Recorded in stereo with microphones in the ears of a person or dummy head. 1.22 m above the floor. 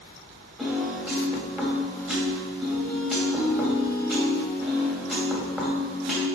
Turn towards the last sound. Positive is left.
turn(degrees=-15)  # may be behind; listen again after turning